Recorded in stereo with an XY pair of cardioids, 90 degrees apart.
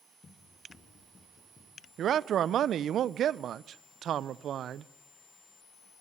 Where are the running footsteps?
50° left, 8.5 m.